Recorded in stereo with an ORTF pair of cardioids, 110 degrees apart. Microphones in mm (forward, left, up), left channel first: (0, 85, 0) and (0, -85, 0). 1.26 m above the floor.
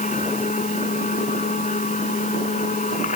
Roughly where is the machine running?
Ahead left.